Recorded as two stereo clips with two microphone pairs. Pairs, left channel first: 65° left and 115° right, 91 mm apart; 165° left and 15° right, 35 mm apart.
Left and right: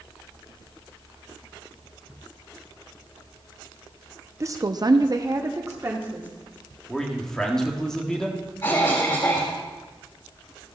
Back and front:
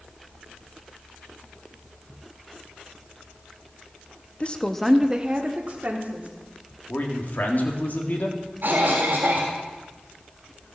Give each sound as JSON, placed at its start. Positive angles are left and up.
{"t": 4.4, "sound": "a woman speaking", "azimuth_deg": -155, "distance_m": 0.7}
{"t": 6.9, "sound": "a man speaking", "azimuth_deg": 145, "distance_m": 1.7}
{"t": 8.6, "sound": "a cough", "azimuth_deg": 10, "distance_m": 2.0}